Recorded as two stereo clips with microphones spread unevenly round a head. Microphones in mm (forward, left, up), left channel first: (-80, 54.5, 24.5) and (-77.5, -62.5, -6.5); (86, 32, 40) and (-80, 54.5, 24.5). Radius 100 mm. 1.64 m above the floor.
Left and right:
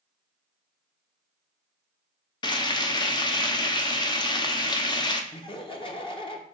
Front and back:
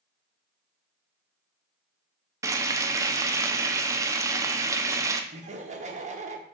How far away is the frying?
About 0.6 m.